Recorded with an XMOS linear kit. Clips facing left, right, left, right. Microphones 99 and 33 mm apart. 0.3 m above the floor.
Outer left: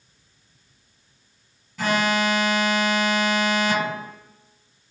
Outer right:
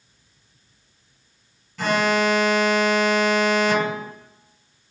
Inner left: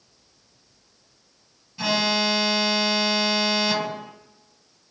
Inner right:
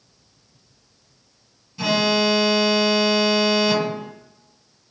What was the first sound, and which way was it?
An alarm, 10° left (ahead or behind).